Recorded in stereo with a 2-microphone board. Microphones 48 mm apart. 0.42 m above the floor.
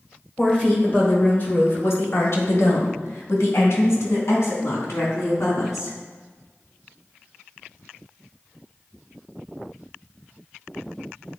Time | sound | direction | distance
0.4 | a woman speaking | 15° left (ahead or behind) | 1.3 m